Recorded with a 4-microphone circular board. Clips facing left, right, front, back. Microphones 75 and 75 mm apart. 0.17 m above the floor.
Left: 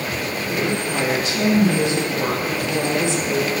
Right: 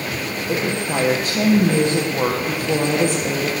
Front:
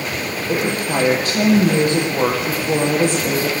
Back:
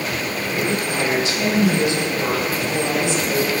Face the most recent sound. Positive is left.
turn(degrees=-45)